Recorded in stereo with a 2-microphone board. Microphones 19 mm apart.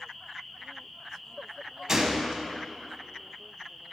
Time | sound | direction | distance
1.9 | a gunshot | 30° right (ahead or behind) | 1.0 m